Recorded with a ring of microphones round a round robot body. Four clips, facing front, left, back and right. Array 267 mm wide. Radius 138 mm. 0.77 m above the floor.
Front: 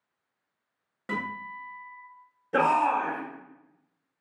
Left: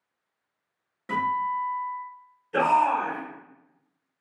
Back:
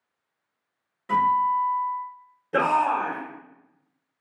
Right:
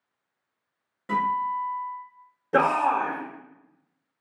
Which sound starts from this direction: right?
A shout, at 2.5 s.